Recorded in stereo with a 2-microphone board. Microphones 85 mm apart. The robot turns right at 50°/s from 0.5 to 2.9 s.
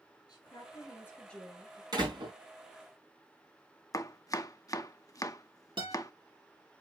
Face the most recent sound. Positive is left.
turn(degrees=-80)